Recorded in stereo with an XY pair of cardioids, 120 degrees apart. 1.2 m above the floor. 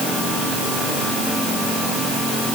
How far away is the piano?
I don't hear a piano.